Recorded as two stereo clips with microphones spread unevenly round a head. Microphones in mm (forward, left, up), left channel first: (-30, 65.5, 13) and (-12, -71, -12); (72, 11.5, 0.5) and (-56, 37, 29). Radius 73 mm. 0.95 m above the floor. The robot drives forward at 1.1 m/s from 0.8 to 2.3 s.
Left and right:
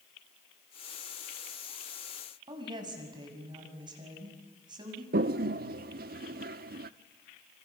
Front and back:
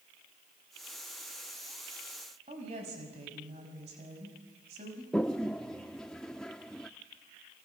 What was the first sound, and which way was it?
A woman speaking, 140° right.